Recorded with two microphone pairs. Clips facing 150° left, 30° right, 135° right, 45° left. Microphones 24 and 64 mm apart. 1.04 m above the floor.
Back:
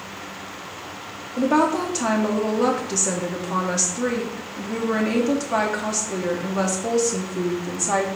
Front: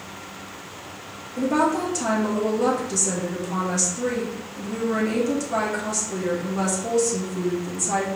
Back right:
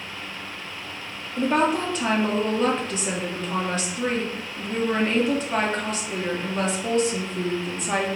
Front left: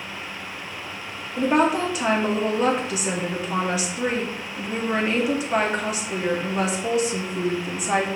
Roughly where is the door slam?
I don't hear a door slam.